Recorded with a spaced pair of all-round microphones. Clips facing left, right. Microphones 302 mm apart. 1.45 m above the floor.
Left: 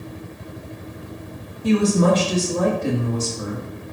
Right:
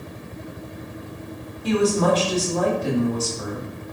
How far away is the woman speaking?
About 2.5 m.